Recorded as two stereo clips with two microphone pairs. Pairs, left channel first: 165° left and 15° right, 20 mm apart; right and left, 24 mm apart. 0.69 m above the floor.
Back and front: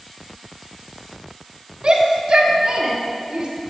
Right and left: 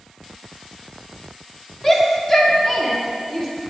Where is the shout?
30° right, 1.4 m.